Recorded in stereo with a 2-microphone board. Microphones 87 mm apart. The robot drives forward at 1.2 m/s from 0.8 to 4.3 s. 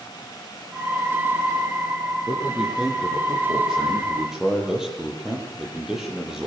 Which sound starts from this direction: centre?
A man speaking, at 2.3 s.